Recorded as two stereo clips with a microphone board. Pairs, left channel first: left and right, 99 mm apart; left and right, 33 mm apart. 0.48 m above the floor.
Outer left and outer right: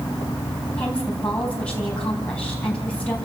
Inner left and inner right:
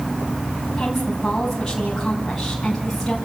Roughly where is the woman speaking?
Centre.